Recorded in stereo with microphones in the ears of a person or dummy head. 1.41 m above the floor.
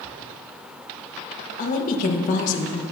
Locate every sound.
1.6 s a woman speaking: 45° left (ahead or behind), 1.4 m